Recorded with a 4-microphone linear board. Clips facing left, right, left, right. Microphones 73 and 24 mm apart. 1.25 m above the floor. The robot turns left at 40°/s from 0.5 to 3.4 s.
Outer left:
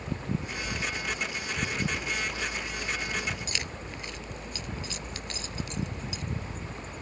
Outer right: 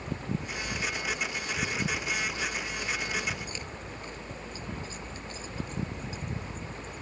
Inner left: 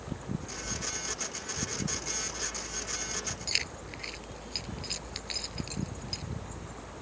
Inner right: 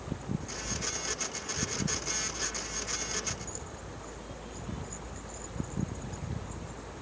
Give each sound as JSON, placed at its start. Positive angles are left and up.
{"t": 3.5, "sound": "keys jangling", "side_deg": 90}